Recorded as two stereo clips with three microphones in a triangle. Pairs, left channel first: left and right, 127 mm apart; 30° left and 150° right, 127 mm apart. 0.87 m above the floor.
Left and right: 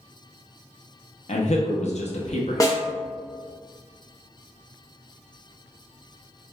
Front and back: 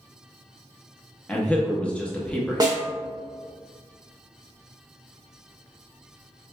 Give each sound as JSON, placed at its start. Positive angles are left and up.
{"t": 1.3, "sound": "a man speaking", "azimuth_deg": 110, "distance_m": 0.6}
{"t": 2.6, "sound": "a snare drum", "azimuth_deg": 155, "distance_m": 0.7}